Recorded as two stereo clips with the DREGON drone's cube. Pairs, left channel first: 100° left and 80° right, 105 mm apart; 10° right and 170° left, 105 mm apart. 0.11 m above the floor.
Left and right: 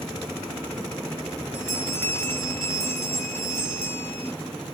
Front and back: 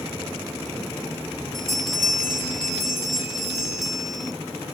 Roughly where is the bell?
Left.